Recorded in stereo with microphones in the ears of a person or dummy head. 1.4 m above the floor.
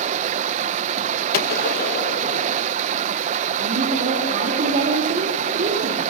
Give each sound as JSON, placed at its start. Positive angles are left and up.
{"t": 0.0, "sound": "running water", "side_deg": -45, "distance_m": 0.8}
{"t": 1.3, "sound": "a gunshot", "side_deg": 65, "distance_m": 1.5}
{"t": 3.6, "sound": "a woman speaking", "side_deg": -40, "distance_m": 3.5}